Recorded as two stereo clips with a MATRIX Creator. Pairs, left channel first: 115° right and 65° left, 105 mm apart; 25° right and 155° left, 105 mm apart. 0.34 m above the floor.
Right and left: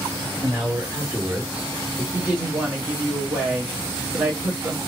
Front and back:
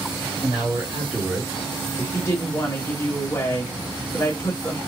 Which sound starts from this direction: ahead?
A woman speaking, at 2.1 s.